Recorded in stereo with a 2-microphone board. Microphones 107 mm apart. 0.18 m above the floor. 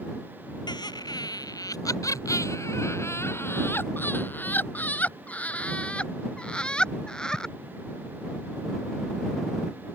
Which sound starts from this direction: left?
Laughter, at 0.7 s.